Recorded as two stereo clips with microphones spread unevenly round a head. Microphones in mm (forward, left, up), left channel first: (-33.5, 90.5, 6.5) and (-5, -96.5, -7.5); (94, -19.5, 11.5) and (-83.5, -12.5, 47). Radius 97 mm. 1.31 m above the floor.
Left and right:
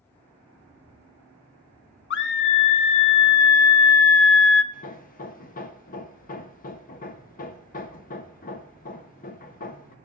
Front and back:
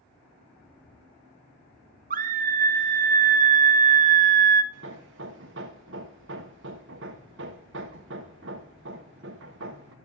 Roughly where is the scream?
Behind left.